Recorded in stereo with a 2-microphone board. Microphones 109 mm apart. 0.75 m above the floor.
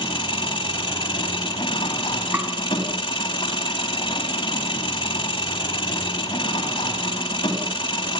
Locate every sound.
0.0 s an engine running: 45° left (ahead or behind), 3 m
2.3 s tapping: 15° right (ahead or behind), 2 m